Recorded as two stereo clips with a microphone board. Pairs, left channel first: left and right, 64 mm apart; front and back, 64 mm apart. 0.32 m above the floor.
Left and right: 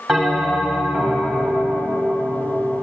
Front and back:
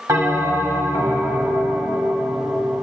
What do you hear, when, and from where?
0.1 s a bell: 170° right, 1.9 m